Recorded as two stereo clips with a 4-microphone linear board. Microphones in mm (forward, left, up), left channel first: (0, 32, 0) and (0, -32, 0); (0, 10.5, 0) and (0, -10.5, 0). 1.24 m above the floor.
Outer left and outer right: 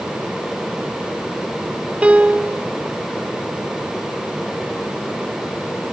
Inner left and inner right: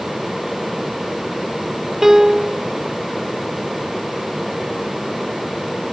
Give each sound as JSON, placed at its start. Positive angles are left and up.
{"t": 2.0, "sound": "a piano", "side_deg": -20, "distance_m": 0.5}